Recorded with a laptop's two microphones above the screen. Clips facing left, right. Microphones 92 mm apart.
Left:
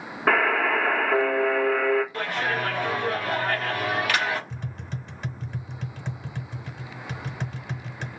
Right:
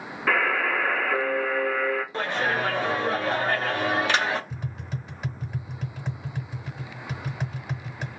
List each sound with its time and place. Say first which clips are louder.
0.3 s a buzzer: left 3 dB; 45° left (ahead or behind), 1.1 m
2.1 s a clap: right 1 dB; 25° right (ahead or behind), 0.7 m
4.5 s tapping: right 1 dB; 5° right (ahead or behind), 0.8 m